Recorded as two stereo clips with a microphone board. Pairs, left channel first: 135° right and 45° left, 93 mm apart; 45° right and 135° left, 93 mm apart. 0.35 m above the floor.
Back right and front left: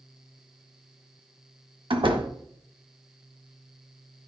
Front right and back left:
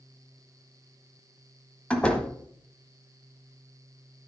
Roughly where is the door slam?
Ahead left.